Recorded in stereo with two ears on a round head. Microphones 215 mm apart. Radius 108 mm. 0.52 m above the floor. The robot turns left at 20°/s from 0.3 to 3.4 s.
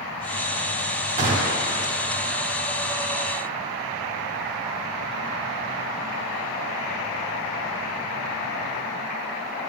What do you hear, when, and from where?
1.2 s a gunshot: 30° right (ahead or behind), 1.4 m